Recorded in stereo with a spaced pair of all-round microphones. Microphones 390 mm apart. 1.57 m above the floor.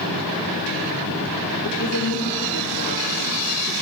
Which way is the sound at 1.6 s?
70° left (ahead or behind).